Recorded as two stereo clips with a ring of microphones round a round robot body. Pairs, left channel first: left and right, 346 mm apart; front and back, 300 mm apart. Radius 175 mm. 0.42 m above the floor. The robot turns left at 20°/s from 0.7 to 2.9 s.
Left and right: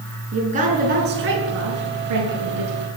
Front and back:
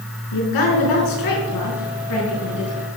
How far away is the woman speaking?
About 5 m.